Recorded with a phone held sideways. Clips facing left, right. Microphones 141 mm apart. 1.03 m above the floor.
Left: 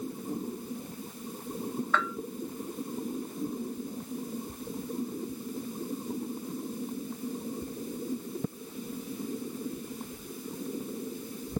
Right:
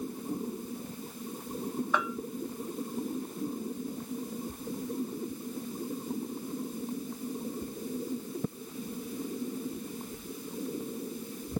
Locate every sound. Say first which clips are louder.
1.9 s a bell: left 1 dB; 15° right (ahead or behind)